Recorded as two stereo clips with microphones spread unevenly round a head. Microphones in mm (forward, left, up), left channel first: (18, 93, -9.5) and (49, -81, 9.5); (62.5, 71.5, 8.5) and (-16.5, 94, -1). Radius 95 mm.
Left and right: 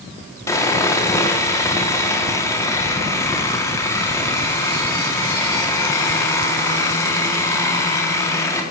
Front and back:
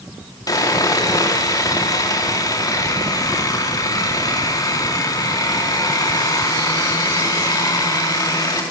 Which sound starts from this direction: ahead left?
Sawing, at 0.5 s.